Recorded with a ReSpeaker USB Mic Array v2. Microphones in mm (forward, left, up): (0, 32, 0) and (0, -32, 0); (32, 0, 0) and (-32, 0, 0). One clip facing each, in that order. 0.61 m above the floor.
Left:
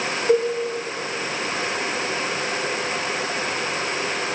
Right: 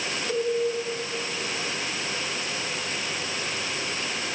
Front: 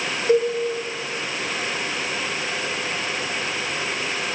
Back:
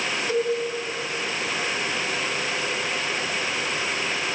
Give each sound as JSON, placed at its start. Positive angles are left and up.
{"t": 0.3, "sound": "a cowbell", "azimuth_deg": 55, "distance_m": 1.3}